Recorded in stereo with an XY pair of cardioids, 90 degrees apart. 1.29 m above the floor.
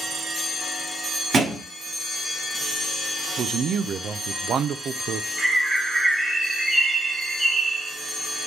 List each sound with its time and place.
1.3 s a thud: 65° right, 2 m
3.4 s a man speaking: 70° right, 0.5 m
5.4 s a bird: 25° right, 1.8 m